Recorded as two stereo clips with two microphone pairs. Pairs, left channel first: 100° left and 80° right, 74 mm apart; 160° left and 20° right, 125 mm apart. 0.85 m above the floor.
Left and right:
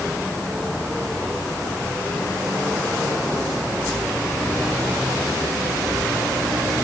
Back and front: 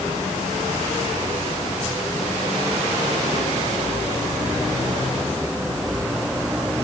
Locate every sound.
Only background noise.